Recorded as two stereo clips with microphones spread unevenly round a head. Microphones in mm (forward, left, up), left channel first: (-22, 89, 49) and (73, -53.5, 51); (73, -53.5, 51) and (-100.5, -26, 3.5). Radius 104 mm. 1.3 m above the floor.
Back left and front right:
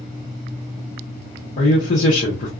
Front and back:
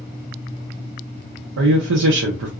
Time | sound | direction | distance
1.6 | a man speaking | 175° left | 0.6 m